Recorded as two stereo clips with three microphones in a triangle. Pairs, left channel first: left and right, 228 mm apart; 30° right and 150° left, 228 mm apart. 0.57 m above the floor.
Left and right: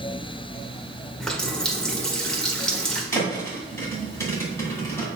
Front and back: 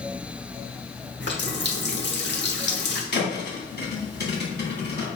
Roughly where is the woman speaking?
No woman speaking in this recording.